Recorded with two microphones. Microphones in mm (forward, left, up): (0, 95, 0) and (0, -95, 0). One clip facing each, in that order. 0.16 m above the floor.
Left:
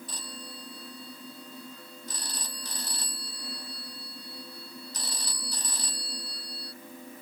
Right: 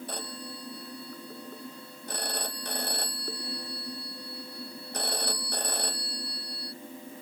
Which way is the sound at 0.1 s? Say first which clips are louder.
Right 5 dB; 60° right (ahead or behind).